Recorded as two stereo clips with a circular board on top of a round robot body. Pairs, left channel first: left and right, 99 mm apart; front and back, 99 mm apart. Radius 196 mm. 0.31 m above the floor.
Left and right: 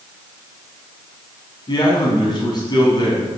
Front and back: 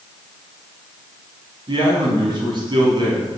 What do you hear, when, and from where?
1.7 s a man speaking: 135° left, 5.5 m